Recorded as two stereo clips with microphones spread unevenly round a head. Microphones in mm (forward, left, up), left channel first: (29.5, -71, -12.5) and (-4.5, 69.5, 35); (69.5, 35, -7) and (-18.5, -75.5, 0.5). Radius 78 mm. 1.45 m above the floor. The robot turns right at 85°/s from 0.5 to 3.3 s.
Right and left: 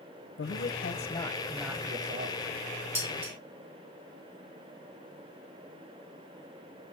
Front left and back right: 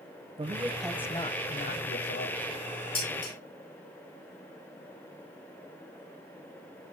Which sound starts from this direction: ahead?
Dishes clattering, at 3.0 s.